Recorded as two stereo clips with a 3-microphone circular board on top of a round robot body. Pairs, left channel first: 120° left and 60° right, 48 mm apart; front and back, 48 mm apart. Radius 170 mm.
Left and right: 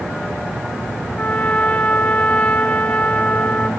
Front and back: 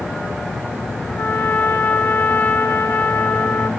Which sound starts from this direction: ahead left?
A trumpet, at 1.2 s.